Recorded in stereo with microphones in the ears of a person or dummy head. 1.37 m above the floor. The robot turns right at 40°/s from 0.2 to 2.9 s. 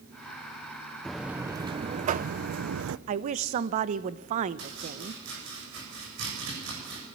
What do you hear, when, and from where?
1.1 s a buzzer: straight behind, 0.6 m; by 3.0 s 105° right, 0.6 m
3.1 s a woman speaking: 45° right (ahead or behind), 0.9 m
4.6 s chopping: 70° right (ahead or behind), 7.5 m